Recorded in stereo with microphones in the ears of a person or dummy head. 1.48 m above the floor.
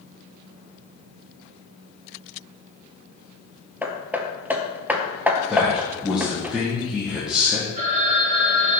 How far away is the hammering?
About 0.9 m.